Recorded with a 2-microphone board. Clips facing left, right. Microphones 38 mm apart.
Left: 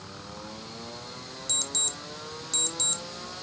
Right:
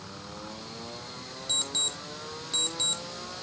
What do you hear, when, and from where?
1.5 s an alarm clock: 20° right (ahead or behind), 0.8 m